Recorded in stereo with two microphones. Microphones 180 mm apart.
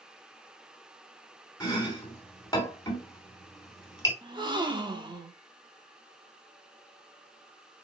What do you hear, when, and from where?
1.6 s chopping: 20° left (ahead or behind), 2.5 m
4.2 s a gasp: 25° right (ahead or behind), 1.0 m